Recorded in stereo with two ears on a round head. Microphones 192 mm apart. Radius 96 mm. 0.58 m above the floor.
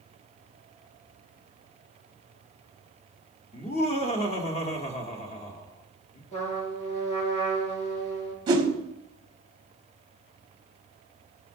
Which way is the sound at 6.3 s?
35° left (ahead or behind).